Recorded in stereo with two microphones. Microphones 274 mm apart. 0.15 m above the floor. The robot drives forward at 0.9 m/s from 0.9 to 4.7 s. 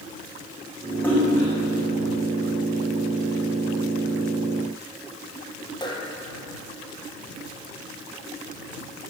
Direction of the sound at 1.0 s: 5° left (ahead or behind).